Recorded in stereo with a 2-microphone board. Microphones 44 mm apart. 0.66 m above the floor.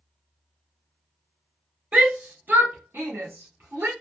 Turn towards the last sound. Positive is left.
turn(degrees=-65)  # may be behind; listen again after turning